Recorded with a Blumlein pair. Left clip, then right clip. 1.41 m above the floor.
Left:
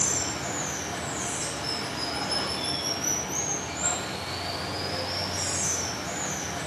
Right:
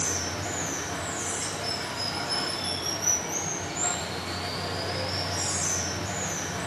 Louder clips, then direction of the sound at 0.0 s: Left 1 dB; 10° right.